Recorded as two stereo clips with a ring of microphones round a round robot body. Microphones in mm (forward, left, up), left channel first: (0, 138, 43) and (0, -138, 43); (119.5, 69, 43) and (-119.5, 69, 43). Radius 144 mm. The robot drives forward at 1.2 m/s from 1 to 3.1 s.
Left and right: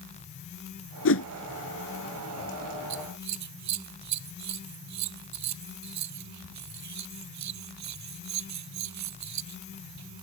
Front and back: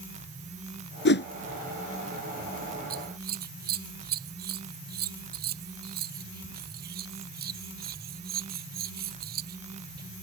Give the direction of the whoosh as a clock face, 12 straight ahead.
11 o'clock.